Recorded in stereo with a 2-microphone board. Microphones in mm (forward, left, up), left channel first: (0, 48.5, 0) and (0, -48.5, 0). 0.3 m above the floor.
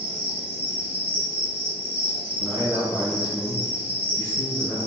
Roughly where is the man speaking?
Centre.